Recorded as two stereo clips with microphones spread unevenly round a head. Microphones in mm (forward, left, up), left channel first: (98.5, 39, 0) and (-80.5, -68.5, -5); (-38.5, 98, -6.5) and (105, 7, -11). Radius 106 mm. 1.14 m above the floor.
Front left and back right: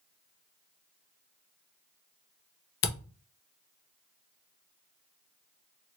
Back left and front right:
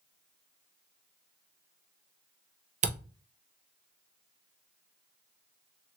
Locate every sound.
2.8 s a camera shutter: 10° left, 0.8 m